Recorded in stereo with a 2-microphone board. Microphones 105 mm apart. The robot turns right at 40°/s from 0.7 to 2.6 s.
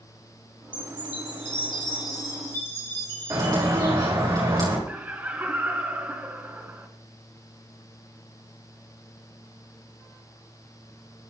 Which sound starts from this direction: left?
A chime, at 0.7 s.